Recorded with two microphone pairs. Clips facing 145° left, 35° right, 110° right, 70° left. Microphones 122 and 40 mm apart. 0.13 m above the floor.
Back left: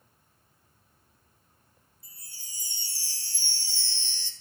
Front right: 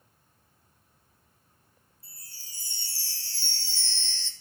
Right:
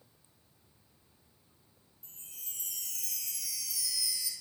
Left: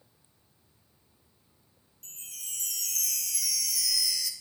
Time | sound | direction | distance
2.0 | a chime | 65° left | 1.3 m